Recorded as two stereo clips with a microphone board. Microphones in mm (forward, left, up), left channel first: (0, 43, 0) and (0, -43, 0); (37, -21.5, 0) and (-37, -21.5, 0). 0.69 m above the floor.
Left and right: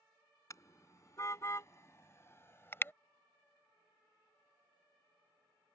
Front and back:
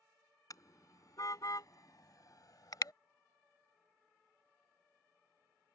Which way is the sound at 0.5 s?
40° left.